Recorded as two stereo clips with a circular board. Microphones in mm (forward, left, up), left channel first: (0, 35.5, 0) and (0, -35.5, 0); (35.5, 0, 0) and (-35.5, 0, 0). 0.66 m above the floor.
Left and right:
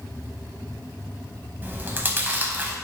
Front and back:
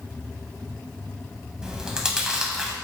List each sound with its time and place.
1.6 s chewing: 110° right, 0.5 m